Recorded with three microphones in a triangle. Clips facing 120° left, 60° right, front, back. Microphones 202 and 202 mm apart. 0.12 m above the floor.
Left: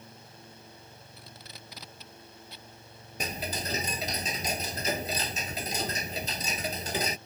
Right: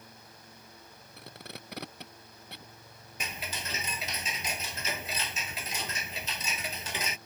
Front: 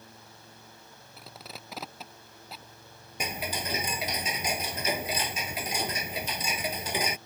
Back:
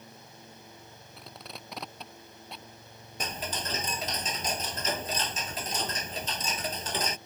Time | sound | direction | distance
1.2 | tape being pulled | 85° right | ?
3.2 | ticking | 80° left | ?